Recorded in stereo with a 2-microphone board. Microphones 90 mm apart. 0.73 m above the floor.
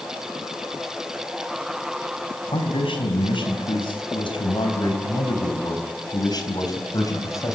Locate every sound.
2.5 s a man speaking: 85° left, 4.5 m; by 7.5 s 40° left (ahead or behind), 3.5 m